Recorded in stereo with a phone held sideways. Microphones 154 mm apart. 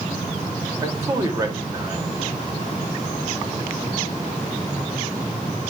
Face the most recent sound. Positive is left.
turn(degrees=-20)  # may be behind; listen again after turning